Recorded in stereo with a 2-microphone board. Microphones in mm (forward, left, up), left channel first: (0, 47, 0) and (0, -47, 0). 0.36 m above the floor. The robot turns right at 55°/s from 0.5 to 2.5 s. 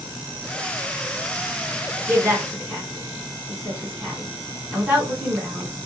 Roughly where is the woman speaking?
Right.